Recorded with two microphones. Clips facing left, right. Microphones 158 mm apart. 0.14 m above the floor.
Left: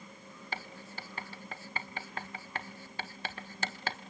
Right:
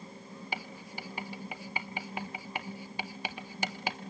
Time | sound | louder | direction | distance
0.5 | writing | right 1 dB | 15° right (ahead or behind) | 0.6 m